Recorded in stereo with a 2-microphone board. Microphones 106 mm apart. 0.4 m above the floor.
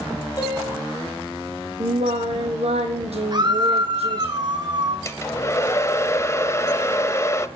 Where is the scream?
45° right (ahead or behind), 3.5 m.